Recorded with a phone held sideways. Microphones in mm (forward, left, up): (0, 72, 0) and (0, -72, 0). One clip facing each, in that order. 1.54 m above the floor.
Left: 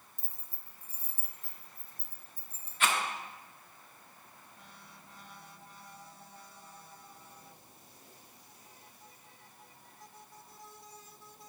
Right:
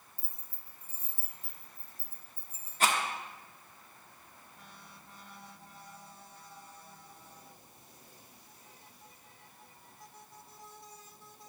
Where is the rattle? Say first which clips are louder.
Right 2 dB; 40° right (ahead or behind), 1.0 m.